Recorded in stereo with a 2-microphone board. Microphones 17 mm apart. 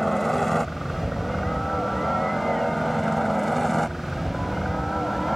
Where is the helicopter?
20° left (ahead or behind); by 5.4 s 15° left (ahead or behind).